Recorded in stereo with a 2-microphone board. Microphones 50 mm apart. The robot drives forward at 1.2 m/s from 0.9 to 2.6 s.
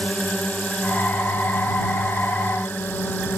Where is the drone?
20° left (ahead or behind); by 3.4 s 40° left (ahead or behind).